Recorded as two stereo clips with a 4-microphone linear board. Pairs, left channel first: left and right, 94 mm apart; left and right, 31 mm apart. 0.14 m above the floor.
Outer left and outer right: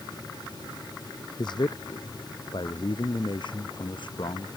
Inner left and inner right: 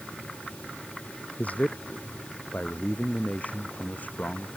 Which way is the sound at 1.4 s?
50° left (ahead or behind).